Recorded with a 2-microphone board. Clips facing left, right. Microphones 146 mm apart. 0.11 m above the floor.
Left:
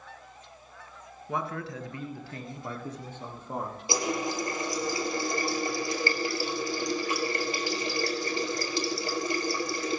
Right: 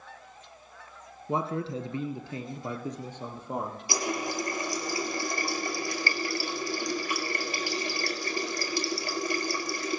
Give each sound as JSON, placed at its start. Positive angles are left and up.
{"t": 1.3, "sound": "a man speaking", "side_deg": -25, "distance_m": 1.2}
{"t": 3.9, "sound": "a running tap", "side_deg": 25, "distance_m": 1.7}